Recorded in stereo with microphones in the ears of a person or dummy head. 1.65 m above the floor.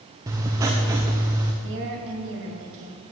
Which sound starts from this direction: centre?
Writing, at 0.3 s.